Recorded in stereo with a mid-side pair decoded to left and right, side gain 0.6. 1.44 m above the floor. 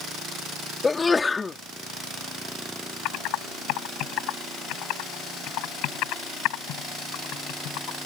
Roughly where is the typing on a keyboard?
Left.